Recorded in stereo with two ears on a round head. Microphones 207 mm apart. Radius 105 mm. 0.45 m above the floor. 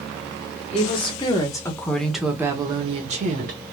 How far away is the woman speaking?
About 1.4 m.